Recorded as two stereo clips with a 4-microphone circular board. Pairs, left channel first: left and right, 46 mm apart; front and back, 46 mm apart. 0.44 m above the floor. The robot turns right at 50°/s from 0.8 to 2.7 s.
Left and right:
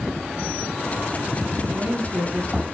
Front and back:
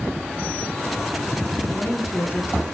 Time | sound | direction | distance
1.7 | a woman speaking | 75° right | 6 m